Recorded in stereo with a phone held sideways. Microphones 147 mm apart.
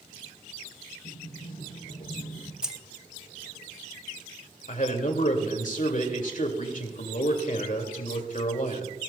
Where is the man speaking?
65° left (ahead or behind), 2 m.